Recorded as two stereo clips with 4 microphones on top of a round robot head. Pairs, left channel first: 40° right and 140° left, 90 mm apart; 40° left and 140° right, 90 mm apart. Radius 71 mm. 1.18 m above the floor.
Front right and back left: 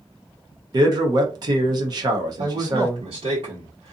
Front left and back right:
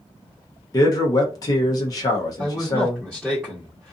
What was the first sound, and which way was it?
A man speaking, 95° left.